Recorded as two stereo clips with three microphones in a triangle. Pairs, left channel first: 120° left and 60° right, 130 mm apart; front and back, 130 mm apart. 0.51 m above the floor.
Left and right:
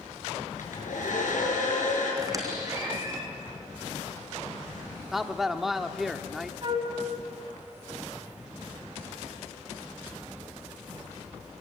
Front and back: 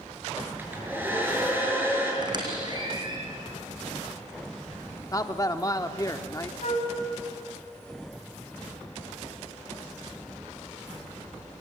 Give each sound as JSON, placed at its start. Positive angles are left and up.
{"t": 0.6, "sound": "a hair dryer", "azimuth_deg": 105, "distance_m": 6.5}
{"t": 2.2, "sound": "a squeak", "azimuth_deg": -125, "distance_m": 3.5}
{"t": 5.1, "sound": "a man speaking", "azimuth_deg": 25, "distance_m": 0.8}
{"t": 6.6, "sound": "a flute", "azimuth_deg": -15, "distance_m": 3.0}